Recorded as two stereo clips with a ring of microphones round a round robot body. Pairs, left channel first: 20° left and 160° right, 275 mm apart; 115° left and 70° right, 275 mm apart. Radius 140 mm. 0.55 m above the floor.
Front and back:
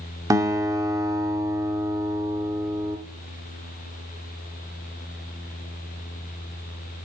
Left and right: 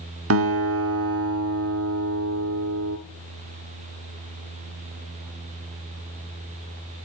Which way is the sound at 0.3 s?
80° right.